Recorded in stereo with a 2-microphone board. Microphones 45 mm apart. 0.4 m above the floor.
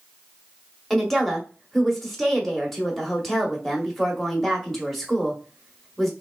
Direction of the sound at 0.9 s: 5° left (ahead or behind).